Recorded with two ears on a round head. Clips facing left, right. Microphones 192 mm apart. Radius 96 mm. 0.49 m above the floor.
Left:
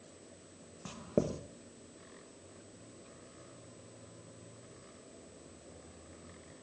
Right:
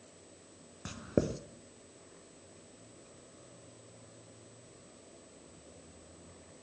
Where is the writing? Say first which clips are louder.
Right 1 dB; 15° right (ahead or behind), 0.9 m.